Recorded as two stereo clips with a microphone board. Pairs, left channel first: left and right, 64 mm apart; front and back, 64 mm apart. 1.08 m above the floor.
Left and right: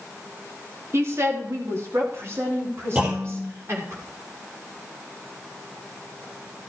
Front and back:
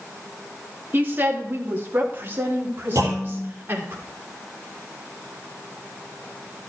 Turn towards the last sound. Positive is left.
turn(degrees=-150)